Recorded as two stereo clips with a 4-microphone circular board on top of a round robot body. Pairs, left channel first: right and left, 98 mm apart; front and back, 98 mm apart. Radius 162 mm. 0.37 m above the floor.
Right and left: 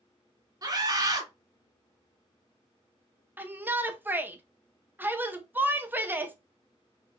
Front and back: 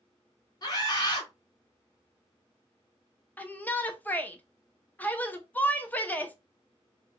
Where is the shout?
50° left, 0.8 m.